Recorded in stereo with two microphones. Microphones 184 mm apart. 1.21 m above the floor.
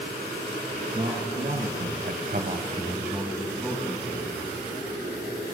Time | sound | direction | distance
0.9 | a man speaking | 40° right (ahead or behind) | 2 m